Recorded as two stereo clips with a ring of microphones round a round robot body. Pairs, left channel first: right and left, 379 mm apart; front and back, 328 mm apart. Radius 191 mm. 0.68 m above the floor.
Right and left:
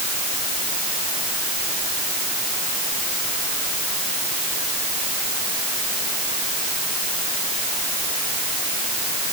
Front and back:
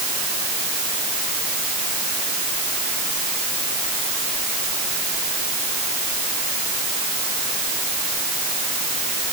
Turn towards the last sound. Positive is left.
No sound to turn to.